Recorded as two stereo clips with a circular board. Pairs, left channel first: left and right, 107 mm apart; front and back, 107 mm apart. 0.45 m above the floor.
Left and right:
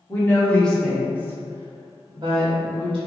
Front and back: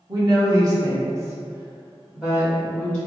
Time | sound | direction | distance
0.1 | a woman speaking | 145° left | 1.0 m